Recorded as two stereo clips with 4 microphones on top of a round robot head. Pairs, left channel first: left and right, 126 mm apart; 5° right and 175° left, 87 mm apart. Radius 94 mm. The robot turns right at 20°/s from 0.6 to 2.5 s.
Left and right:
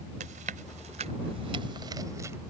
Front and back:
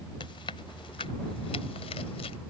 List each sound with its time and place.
0.2 s chewing: 50° right; by 2.4 s 15° right